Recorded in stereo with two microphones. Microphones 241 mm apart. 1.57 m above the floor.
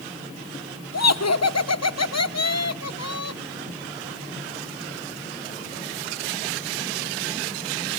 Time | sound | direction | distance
0.9 | laughter | 85° left | 1.2 m